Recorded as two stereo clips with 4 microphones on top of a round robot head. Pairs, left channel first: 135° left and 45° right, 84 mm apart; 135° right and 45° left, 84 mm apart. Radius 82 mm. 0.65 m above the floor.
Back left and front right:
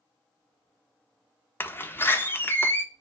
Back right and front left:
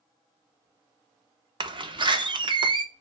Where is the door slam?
70° left, 1.0 m.